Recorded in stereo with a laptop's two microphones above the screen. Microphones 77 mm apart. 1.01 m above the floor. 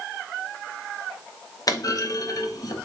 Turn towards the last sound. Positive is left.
turn(degrees=50)  # may be behind; listen again after turning